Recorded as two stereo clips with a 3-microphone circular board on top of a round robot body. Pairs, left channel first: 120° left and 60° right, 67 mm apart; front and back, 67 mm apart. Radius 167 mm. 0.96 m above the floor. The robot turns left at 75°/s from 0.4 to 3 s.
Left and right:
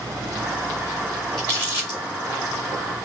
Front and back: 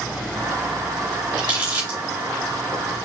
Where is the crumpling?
160° right, 1.7 m; by 2.0 s 150° left, 1.7 m.